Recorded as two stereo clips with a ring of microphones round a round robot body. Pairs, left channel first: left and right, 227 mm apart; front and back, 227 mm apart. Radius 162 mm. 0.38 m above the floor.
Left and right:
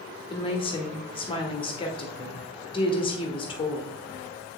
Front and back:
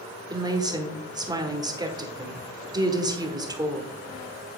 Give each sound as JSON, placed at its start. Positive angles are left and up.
{"t": 0.3, "sound": "a woman speaking", "azimuth_deg": 125, "distance_m": 1.2}